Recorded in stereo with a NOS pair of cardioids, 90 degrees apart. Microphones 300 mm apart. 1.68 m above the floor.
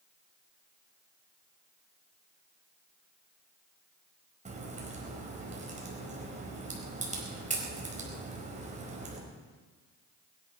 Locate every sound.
4.5 s a crack: 25° right, 4.5 m